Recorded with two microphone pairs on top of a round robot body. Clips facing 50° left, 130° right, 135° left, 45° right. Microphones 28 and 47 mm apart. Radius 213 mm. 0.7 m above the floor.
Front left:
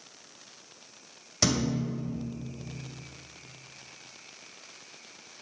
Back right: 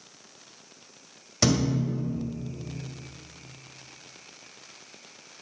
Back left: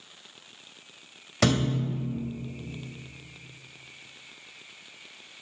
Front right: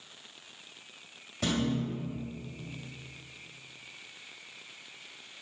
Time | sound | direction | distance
1.4 | a thud | 140° left | 2 m